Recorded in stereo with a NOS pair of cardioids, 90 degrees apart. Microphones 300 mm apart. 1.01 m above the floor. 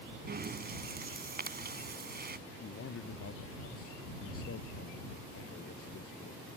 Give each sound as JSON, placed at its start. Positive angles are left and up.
{"t": 0.3, "sound": "breathing", "azimuth_deg": -35}
{"t": 2.6, "sound": "a man speaking", "azimuth_deg": 50}